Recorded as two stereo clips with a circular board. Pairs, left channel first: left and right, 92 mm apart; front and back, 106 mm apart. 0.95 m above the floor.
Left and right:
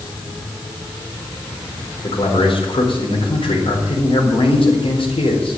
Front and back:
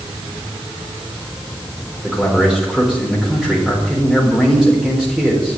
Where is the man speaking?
95° left, 4 m.